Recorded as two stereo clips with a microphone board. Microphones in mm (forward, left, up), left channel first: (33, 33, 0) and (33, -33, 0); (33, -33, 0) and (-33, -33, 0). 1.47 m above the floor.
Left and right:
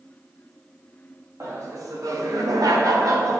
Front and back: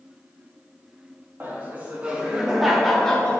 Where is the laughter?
120° right, 3 m; by 3.4 s 70° right, 1.8 m.